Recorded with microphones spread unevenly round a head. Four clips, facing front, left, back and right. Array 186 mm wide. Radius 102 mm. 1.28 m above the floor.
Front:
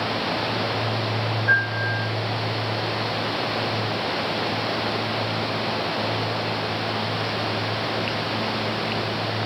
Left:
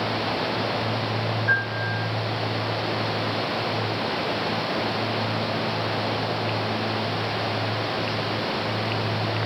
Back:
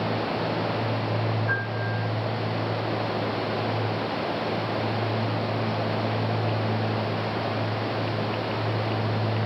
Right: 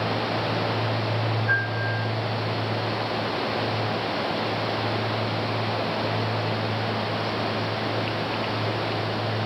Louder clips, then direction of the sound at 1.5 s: Left 1 dB, front 5 dB; 15° left.